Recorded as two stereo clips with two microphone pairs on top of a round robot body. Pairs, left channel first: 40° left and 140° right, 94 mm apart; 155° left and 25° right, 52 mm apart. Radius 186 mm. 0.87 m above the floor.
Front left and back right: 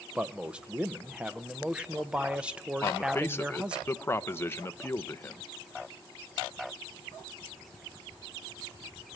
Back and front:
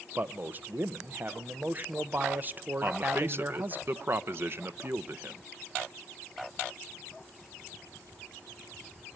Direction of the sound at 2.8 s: 20° right.